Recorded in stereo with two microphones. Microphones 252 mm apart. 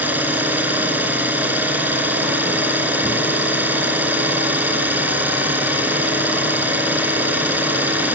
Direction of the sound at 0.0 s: 5° right (ahead or behind).